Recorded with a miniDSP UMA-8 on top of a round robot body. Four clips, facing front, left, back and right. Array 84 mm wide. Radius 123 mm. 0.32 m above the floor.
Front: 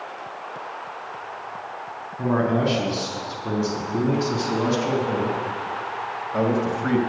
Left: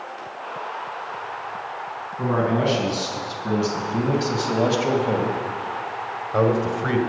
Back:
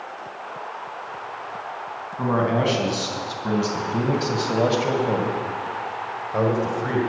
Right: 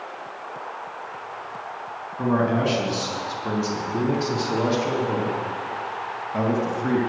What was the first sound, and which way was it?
A man speaking, 165° left.